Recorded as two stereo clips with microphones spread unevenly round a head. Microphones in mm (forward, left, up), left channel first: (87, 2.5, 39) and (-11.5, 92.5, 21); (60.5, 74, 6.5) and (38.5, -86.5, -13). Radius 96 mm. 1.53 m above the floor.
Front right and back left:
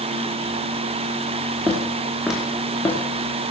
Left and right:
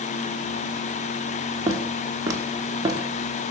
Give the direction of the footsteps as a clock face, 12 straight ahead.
5 o'clock.